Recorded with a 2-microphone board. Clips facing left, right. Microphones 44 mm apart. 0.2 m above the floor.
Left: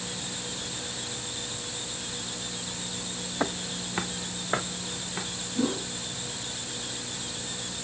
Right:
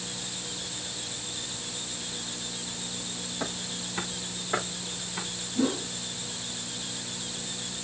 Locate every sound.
3.4 s footsteps: 40° left (ahead or behind), 0.8 m; by 5.2 s 20° left (ahead or behind), 3.5 m
5.5 s a whoosh: centre (ahead or behind), 2.5 m